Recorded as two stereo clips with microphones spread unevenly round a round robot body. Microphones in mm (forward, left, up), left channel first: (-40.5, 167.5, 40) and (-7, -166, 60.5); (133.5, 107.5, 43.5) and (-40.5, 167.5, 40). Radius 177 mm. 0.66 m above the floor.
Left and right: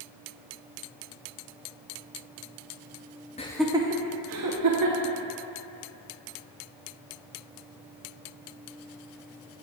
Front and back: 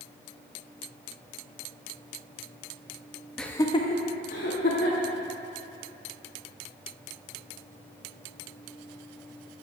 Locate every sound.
3.4 s laughter: 70° left, 0.6 m; by 5.1 s 55° right, 1.4 m